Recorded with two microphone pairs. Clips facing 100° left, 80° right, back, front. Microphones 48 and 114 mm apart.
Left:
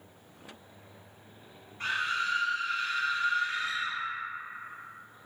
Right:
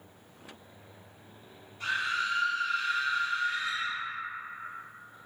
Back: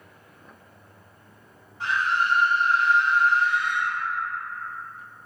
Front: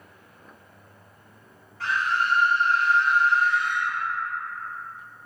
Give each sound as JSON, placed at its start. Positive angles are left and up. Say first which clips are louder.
{"t": 1.8, "sound": "a scream", "louder": "even, back 1 dB", "azimuth_deg": 115, "distance_m": 1.1}